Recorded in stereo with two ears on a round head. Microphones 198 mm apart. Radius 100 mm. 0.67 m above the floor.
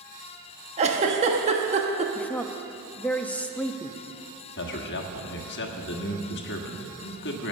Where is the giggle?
30° right (ahead or behind), 1.0 m.